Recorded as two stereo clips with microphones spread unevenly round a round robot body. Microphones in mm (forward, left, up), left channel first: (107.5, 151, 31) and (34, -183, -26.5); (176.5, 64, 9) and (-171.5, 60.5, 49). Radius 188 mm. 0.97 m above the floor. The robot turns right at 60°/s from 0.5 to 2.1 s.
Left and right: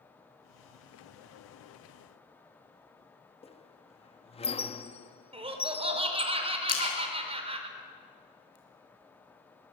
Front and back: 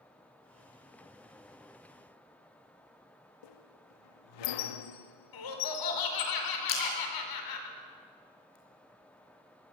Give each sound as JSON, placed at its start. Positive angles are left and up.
{"t": 3.4, "sound": "a squeak", "azimuth_deg": 0, "distance_m": 1.2}
{"t": 5.3, "sound": "laughter", "azimuth_deg": -30, "distance_m": 4.5}
{"t": 6.7, "sound": "a splash", "azimuth_deg": 35, "distance_m": 5.5}